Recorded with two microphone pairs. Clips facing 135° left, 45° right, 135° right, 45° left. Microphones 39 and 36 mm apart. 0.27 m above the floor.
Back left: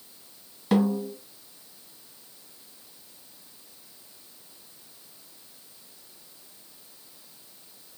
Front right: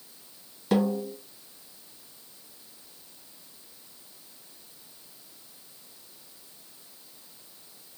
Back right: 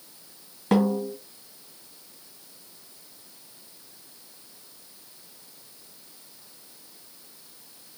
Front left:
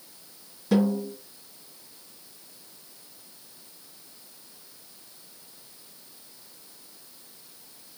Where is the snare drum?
135° right, 1.6 m.